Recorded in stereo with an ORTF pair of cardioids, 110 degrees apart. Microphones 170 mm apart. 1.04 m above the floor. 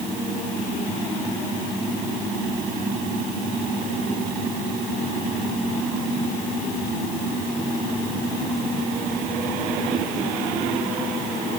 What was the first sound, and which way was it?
Only background noise.